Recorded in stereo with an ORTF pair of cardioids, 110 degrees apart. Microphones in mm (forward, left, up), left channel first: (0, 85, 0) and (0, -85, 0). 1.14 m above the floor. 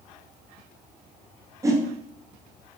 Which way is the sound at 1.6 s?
20° right.